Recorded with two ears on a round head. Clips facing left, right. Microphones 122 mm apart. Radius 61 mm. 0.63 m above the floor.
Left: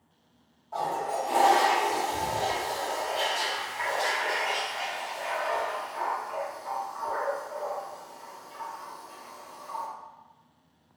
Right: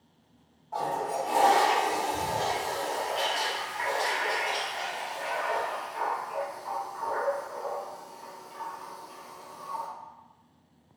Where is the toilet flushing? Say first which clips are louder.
Even; 5° left (ahead or behind), 0.8 m.